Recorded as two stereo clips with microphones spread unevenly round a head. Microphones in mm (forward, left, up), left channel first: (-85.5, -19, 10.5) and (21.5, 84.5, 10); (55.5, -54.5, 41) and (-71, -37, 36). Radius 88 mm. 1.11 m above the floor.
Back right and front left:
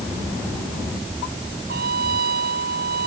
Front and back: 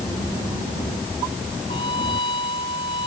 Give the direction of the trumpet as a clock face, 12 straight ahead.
10 o'clock.